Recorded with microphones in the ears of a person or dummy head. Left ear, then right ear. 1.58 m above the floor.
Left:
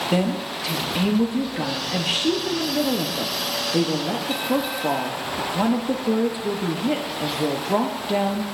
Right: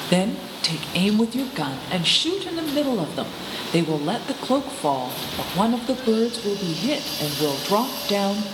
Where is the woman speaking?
35° right (ahead or behind), 0.8 m.